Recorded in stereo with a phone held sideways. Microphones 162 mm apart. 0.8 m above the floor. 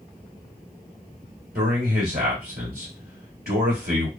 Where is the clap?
No clap in this recording.